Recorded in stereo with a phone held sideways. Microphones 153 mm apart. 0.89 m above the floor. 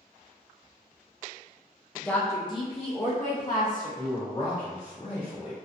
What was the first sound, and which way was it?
A woman speaking, centre (ahead or behind).